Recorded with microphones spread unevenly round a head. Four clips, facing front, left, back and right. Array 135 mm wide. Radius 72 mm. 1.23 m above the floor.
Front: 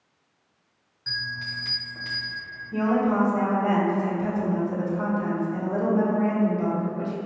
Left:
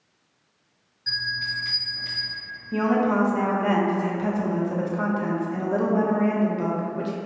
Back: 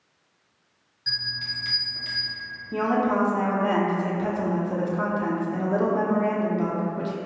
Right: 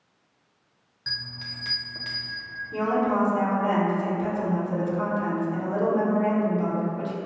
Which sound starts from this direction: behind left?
A woman speaking, at 2.7 s.